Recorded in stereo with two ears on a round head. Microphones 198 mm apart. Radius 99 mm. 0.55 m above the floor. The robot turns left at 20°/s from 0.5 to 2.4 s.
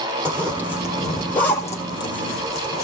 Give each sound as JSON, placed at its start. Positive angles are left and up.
{"t": 0.2, "sound": "a zipper", "side_deg": -10, "distance_m": 3.5}